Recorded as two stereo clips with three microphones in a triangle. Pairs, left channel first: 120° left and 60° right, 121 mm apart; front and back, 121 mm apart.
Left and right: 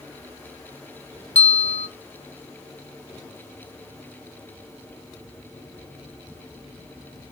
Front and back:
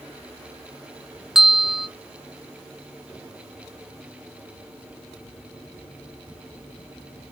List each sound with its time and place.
1.4 s a bell: 95° left, 0.8 m